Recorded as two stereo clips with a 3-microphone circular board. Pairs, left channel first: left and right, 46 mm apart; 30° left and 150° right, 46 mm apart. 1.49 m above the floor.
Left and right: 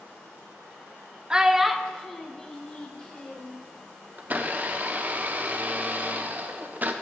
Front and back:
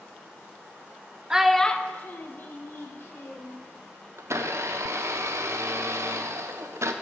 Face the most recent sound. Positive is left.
turn(degrees=-140)